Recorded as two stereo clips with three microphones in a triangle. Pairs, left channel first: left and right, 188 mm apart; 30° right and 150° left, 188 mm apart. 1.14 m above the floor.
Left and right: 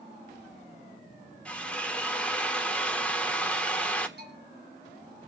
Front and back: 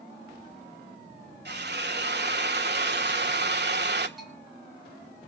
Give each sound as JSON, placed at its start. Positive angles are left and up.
{"t": 1.4, "sound": "a drill", "azimuth_deg": 175, "distance_m": 1.6}
{"t": 4.2, "sound": "a bell", "azimuth_deg": -120, "distance_m": 4.0}